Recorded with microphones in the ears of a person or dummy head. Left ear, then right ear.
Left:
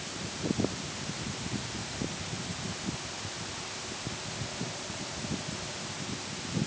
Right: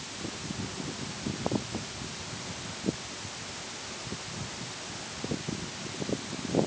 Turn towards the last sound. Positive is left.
No sound to turn to.